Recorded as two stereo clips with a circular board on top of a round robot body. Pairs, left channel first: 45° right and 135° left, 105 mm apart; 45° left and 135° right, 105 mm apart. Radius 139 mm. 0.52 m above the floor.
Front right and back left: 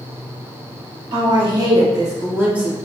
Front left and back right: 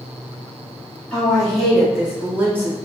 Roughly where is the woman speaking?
Behind left.